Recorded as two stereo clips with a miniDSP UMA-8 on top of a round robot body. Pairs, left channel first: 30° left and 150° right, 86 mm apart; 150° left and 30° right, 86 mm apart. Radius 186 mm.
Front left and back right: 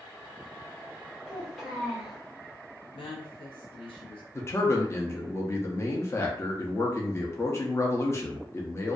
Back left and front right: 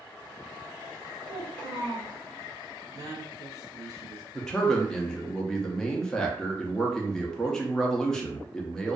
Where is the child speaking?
60° right, 1.1 m.